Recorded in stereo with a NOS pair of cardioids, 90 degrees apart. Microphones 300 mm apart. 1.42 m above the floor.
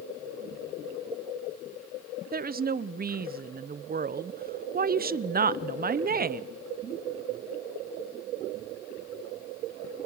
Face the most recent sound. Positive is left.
turn(degrees=-30)